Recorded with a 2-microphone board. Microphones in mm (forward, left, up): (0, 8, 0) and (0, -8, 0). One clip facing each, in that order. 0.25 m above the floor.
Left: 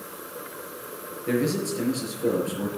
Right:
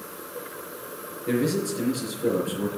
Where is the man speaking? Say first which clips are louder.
Even; 10° left (ahead or behind), 5.5 m.